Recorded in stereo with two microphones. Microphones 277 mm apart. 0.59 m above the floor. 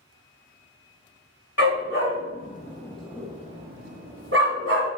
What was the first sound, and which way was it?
A dog barking, 60° left (ahead or behind).